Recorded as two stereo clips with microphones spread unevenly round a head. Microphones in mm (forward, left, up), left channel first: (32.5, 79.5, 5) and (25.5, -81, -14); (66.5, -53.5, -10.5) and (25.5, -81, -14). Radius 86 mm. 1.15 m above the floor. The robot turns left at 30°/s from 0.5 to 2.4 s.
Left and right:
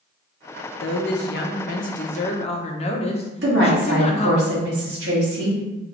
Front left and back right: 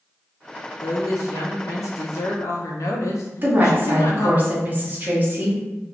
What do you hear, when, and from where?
0.8 s a woman speaking: 80° left, 0.8 m; by 4.4 s 35° left, 0.8 m
3.4 s a woman speaking: 95° right, 1.4 m